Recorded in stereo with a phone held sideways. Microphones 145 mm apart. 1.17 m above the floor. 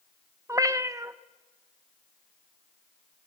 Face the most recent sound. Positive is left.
turn(degrees=-20)  # may be behind; listen again after turning